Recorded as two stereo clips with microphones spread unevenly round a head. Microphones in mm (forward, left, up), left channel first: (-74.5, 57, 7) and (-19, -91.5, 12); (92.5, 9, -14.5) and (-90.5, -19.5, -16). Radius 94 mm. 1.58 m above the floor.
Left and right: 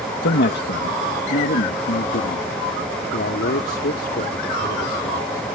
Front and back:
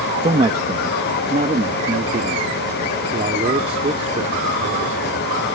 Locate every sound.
0.2 s a man speaking: 125° left; by 5.5 s 135° left